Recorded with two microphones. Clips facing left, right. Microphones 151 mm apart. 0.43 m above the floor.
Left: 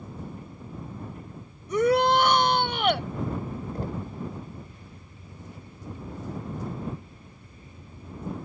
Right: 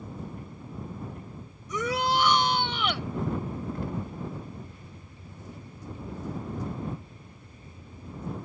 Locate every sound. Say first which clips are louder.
1.7 s a shout: left 7 dB; 55° left (ahead or behind)
3.8 s knocking: even; 35° left (ahead or behind)